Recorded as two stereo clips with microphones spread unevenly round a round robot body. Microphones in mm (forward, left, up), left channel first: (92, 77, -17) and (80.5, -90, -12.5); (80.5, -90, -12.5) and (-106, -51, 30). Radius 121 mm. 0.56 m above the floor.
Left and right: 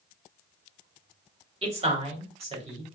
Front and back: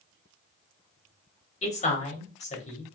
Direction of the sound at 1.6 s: 45° right.